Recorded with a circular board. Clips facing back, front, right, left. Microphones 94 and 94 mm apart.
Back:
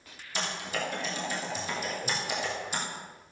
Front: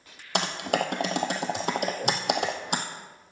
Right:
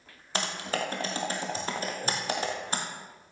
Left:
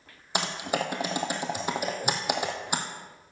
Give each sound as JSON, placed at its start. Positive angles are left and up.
{"t": 0.3, "sound": "typing on a keyboard", "azimuth_deg": 15, "distance_m": 1.5}